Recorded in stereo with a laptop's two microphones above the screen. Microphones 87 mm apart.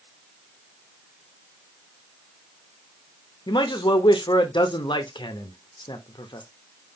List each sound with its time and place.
3.5 s a man speaking: 65° left (ahead or behind), 1.0 m